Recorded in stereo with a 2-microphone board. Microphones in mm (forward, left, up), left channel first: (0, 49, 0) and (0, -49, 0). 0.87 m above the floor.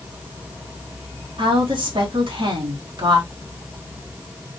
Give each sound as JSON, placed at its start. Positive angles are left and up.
{"t": 1.4, "sound": "a woman speaking", "side_deg": -60, "distance_m": 2.0}